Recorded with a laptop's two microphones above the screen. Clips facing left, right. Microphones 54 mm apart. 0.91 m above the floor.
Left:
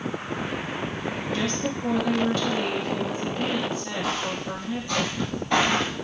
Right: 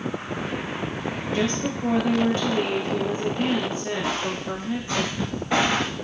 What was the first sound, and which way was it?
A woman speaking, 30° right (ahead or behind).